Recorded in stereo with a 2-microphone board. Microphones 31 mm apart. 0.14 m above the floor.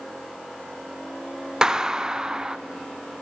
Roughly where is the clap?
Right.